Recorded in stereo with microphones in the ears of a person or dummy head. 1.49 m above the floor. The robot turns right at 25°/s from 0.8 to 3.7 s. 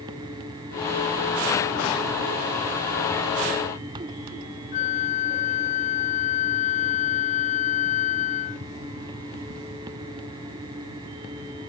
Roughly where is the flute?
Left.